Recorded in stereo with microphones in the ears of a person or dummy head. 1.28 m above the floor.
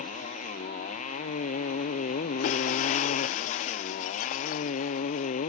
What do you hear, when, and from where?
0.0 s a motorcycle: 45° left (ahead or behind)
2.4 s breaking glass: 40° left (ahead or behind)